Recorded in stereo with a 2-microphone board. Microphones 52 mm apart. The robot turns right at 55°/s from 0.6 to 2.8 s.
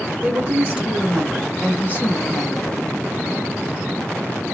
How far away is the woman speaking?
About 1.7 m.